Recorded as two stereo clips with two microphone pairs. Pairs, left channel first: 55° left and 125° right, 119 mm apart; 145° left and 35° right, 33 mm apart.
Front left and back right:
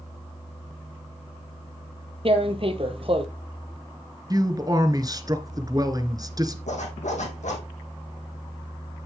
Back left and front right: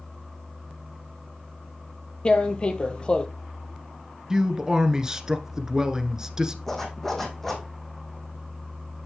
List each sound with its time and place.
2.2 s tearing paper: 160° right, 1.0 m
4.3 s a man speaking: 90° right, 1.3 m
6.7 s a zipper: 65° left, 3 m